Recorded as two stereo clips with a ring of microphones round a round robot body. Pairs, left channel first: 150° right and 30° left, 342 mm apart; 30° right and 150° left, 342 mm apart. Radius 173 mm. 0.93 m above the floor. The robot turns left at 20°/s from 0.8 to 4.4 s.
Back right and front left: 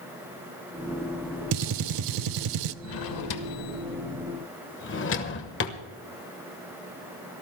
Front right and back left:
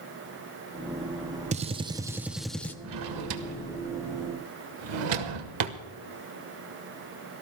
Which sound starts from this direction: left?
A gunshot, at 1.5 s.